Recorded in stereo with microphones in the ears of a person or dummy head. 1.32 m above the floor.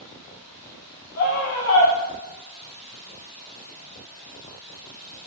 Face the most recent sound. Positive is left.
turn(degrees=75)  # may be behind; listen again after turning